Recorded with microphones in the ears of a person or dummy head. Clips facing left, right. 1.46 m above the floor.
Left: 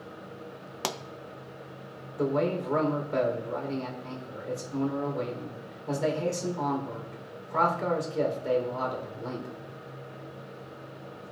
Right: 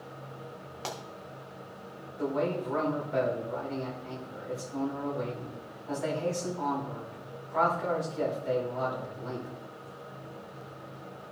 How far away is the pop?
About 0.6 m.